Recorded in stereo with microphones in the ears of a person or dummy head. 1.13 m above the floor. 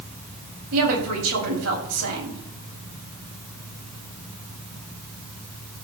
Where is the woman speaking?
85° right, 6.5 m.